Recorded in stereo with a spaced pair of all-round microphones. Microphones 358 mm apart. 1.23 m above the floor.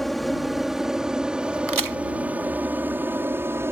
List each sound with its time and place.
0.0 s an aircraft: centre (ahead or behind); by 3.7 s 5° right (ahead or behind)
1.7 s a crack: 65° right (ahead or behind)